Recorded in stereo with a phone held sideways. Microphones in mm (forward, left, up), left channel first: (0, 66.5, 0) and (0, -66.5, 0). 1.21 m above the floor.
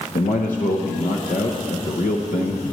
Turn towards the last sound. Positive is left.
turn(degrees=85)